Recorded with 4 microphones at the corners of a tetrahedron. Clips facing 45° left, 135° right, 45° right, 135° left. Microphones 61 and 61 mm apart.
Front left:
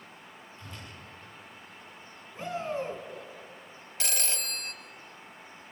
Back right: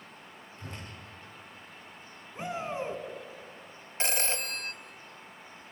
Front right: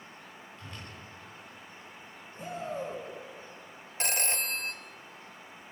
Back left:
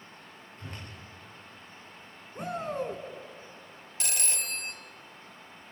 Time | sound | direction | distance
0.6 | a whoosh | 170° right | 8.5 m
2.4 | a shout | 155° left | 3.5 m
4.0 | a phone ringing | 85° right | 1.1 m